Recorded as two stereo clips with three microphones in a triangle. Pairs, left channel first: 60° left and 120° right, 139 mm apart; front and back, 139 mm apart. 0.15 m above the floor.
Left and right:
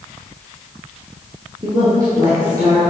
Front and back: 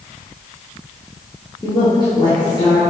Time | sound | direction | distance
1.6 | a woman speaking | 60° right | 2 m